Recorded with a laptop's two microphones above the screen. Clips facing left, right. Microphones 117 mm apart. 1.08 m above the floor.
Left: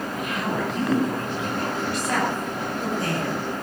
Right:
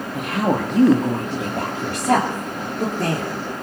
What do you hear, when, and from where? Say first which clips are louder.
0.1 s a woman speaking: right 8 dB; 65° right (ahead or behind), 1.9 m; by 3.3 s 85° right, 3.5 m